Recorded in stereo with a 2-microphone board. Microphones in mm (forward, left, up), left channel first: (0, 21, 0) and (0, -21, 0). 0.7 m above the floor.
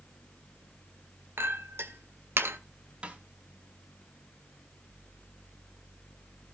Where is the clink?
70° right (ahead or behind), 1.5 m.